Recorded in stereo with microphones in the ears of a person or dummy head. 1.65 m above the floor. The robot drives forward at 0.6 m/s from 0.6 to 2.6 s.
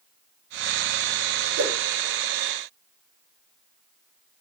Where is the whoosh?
65° right (ahead or behind), 5 m.